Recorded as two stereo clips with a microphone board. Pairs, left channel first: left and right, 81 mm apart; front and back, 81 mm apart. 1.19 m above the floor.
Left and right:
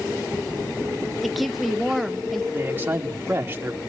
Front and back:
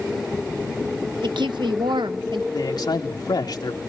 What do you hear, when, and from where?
1.2 s a woman speaking: straight behind, 1.2 m
2.5 s a man speaking: 25° right, 2 m